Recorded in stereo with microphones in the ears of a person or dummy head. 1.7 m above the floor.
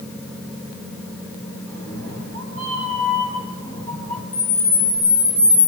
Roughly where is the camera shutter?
Centre.